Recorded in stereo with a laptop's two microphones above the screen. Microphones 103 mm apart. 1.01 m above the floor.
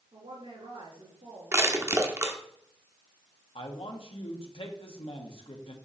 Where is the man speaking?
60° left (ahead or behind), 1.5 m.